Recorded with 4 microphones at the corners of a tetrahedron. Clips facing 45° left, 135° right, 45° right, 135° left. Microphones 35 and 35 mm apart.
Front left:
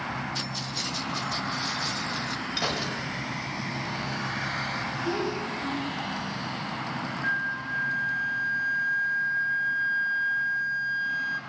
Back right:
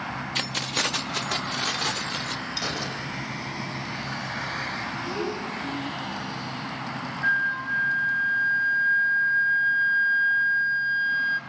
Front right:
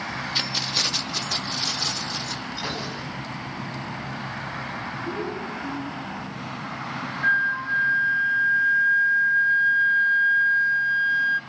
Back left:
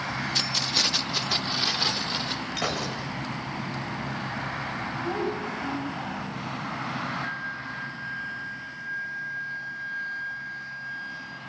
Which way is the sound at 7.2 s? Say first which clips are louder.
Back right 6 dB, front right 11 dB; 80° right.